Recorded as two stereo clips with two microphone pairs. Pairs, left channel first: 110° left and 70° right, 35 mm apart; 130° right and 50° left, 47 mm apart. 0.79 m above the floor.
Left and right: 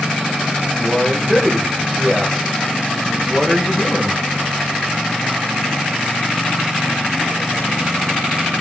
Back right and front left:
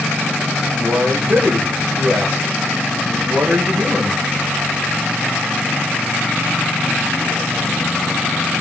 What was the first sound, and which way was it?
A man speaking, 45° left.